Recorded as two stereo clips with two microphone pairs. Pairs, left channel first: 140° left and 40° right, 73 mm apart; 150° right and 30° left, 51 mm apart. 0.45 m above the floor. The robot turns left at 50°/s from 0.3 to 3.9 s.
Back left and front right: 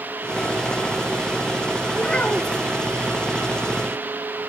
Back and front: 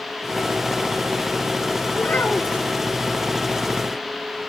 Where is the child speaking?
135° right, 0.6 m; by 2.6 s 170° right, 0.6 m.